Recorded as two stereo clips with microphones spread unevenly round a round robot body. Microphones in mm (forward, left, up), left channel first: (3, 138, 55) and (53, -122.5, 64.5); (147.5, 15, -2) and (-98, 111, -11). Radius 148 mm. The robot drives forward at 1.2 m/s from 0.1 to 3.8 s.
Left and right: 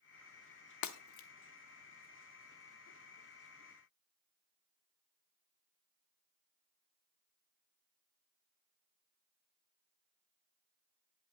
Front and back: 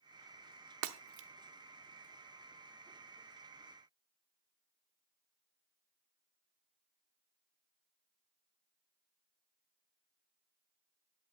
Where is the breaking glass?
130° left, 1.0 m; by 1.3 s 145° left, 1.4 m.